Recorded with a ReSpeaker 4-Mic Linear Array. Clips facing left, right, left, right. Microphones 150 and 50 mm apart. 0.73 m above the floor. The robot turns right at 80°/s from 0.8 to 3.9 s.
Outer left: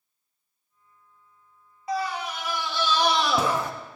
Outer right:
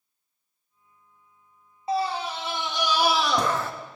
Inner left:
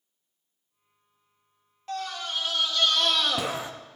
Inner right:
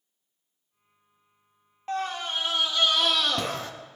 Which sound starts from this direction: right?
A scream, at 1.9 s.